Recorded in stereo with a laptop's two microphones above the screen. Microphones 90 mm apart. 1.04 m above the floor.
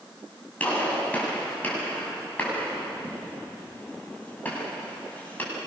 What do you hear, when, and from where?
0.6 s a gunshot: 20° left (ahead or behind), 9 m